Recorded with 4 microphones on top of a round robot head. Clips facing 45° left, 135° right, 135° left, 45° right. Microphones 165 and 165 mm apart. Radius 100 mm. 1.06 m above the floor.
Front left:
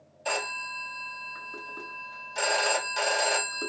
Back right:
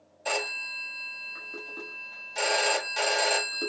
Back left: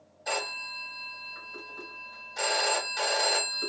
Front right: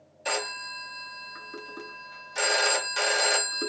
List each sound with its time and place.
0.2 s a phone ringing: 50° right, 1.6 m